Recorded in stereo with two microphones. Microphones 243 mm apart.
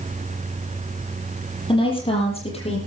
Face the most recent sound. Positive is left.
turn(degrees=25)  # may be behind; listen again after turning